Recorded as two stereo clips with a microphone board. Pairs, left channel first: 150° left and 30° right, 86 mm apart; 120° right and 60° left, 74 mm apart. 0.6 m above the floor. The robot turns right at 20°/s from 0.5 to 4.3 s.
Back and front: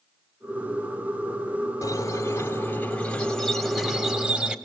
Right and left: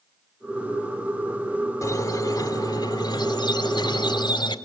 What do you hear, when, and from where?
1.8 s a squeak: 160° right, 1.8 m; by 4.5 s 110° right, 1.8 m